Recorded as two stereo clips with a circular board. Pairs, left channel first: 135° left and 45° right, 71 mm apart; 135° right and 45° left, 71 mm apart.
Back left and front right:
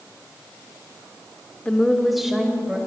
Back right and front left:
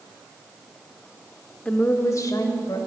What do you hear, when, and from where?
1.6 s a woman speaking: 175° right, 0.8 m; by 2.8 s 125° right, 1.8 m